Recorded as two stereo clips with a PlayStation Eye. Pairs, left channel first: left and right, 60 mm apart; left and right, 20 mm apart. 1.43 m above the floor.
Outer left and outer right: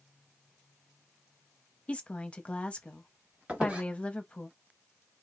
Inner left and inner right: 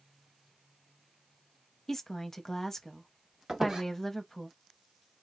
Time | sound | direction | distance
1.9 | a woman speaking | 20° left (ahead or behind) | 0.7 m
3.5 | a squeak | 20° right (ahead or behind) | 1.0 m